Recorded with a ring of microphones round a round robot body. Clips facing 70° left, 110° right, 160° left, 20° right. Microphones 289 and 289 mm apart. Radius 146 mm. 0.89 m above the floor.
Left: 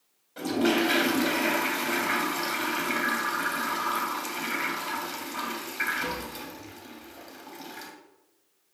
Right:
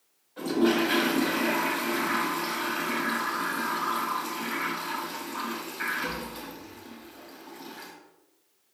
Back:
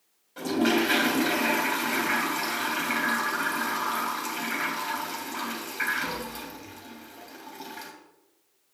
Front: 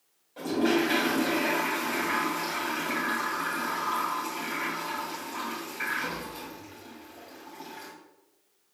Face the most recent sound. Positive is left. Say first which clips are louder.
# right 1 dB, back 1 dB
turn(degrees=95)